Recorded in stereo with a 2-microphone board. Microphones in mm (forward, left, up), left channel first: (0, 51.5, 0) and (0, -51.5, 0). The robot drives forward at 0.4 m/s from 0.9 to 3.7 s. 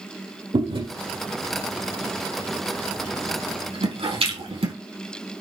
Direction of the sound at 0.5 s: 65° right (ahead or behind).